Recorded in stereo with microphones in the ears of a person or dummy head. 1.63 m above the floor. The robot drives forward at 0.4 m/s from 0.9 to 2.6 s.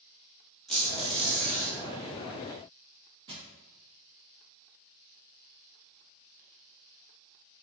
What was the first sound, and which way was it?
A squeak, 5° left (ahead or behind).